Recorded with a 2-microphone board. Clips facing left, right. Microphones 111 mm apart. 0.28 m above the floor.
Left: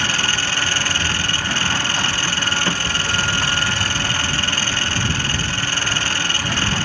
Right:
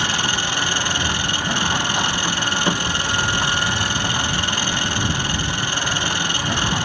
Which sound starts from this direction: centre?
An engine running, at 0.0 s.